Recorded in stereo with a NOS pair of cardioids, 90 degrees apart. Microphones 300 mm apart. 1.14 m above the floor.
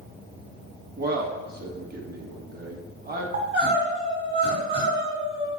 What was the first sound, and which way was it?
A man speaking, 30° right.